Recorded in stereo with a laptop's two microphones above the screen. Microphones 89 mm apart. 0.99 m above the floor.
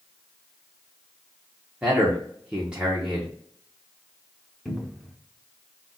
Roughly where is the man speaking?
Centre.